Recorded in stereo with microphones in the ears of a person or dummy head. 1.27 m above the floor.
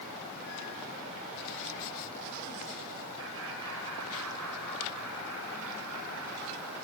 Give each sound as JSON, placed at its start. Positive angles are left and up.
{"t": 3.2, "sound": "laughter", "side_deg": -70, "distance_m": 5.5}